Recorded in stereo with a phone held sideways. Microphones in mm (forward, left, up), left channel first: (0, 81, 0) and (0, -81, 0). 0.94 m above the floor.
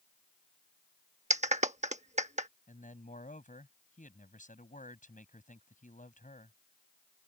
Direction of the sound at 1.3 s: 45° right (ahead or behind).